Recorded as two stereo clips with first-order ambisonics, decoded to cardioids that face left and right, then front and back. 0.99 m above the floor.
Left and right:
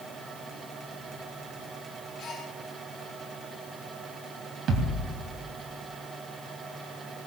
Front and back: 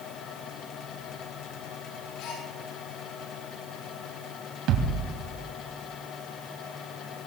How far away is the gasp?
About 6.5 m.